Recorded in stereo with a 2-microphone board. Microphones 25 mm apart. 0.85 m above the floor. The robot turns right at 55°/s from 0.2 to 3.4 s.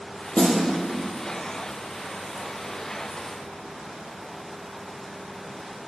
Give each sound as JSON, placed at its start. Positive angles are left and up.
{"t": 0.3, "sound": "a snare drum", "side_deg": 50, "distance_m": 5.5}